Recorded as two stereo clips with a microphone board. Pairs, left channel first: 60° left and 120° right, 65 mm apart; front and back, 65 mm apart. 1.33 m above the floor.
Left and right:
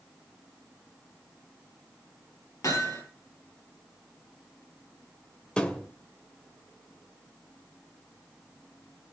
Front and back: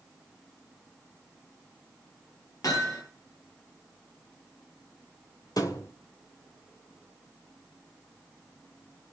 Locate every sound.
2.6 s hammering: 30° left, 8 m
5.6 s a thud: 15° right, 2.5 m